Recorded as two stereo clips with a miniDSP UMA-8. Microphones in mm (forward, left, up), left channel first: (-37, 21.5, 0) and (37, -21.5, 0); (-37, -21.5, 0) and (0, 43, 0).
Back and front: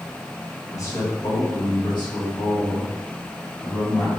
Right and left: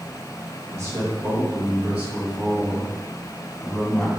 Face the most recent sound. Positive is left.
turn(degrees=160)